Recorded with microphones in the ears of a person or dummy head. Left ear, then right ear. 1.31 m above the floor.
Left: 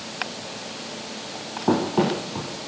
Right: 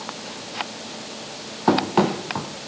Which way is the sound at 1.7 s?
55° right (ahead or behind).